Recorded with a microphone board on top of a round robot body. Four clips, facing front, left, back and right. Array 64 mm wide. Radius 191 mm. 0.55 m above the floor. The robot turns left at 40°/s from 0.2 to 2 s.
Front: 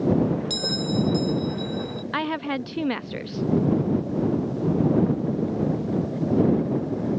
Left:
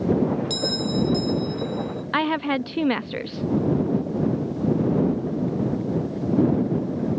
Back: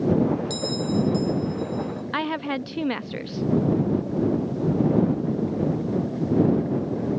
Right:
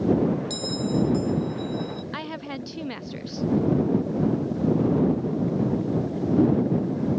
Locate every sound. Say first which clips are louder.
0.5 s a bell: left 1 dB, back 1 dB; 50° left; by 2.0 s 10° right
2.1 s a woman speaking: left 10 dB, even; 90° left